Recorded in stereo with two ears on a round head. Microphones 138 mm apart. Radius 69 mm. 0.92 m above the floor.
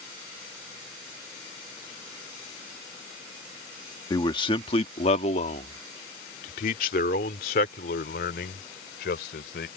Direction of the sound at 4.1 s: 30° left (ahead or behind).